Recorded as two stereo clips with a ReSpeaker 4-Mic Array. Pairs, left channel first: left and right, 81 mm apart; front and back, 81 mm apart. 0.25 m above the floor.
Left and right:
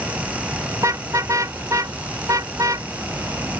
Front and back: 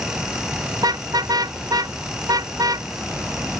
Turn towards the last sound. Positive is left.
turn(degrees=-135)